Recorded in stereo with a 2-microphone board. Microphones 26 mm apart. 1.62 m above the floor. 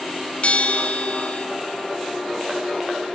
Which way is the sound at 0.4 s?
50° left (ahead or behind).